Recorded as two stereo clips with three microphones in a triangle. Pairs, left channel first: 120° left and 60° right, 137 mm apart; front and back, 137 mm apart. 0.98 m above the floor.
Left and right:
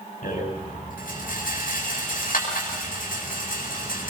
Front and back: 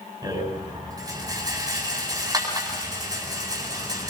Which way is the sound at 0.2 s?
120° left.